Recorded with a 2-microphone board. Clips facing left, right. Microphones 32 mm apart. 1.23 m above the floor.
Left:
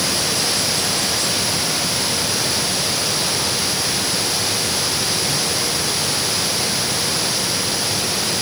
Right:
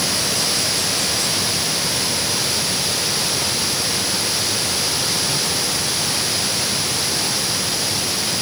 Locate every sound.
Only background noise.